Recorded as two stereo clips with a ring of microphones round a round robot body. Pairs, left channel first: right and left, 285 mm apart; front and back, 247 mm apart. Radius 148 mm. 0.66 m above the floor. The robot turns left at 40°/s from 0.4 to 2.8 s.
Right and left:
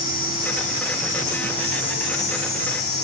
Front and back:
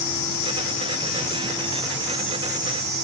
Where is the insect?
30° right, 5 m; by 3.0 s 125° right, 5 m.